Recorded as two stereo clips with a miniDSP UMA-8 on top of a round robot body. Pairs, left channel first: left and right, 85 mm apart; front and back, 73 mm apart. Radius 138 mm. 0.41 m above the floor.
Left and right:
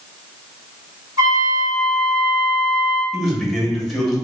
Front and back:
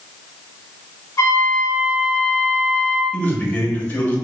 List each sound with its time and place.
1.2 s a trumpet: 45° right, 0.9 m
3.1 s a man speaking: straight ahead, 1.0 m